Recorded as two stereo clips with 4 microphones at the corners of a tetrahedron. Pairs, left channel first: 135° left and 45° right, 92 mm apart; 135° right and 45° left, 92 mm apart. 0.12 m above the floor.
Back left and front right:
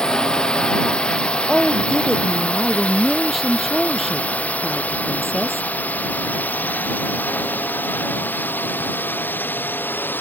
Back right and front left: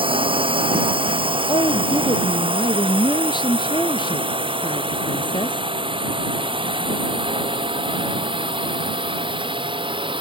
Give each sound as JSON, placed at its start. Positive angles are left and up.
{"t": 0.0, "sound": "a drone", "azimuth_deg": 55}
{"t": 1.5, "sound": "a woman speaking", "azimuth_deg": -135}